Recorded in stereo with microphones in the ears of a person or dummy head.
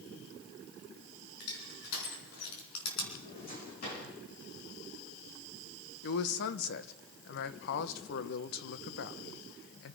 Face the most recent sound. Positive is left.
turn(degrees=60)  # may be behind; listen again after turning